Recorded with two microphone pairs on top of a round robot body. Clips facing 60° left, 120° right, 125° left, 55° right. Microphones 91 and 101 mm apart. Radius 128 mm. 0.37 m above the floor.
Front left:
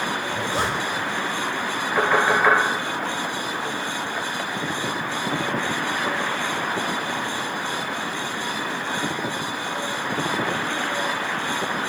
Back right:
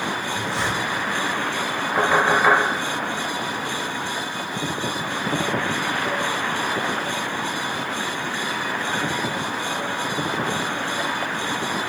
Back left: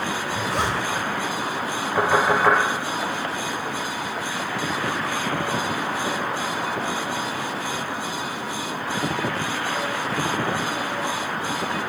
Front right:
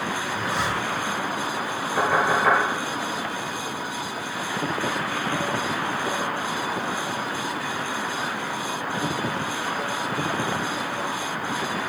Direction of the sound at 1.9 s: 155° left.